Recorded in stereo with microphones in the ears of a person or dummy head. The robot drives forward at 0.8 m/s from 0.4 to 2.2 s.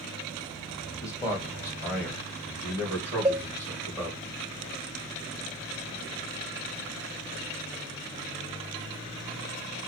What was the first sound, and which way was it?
A man speaking, 20° left (ahead or behind).